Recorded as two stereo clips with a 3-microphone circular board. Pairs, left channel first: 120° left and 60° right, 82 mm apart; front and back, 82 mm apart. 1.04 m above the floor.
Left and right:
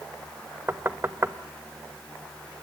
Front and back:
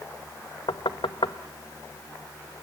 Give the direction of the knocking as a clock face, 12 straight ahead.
12 o'clock.